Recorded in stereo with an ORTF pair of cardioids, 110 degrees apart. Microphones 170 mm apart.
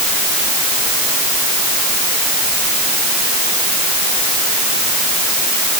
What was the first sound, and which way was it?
Only background noise.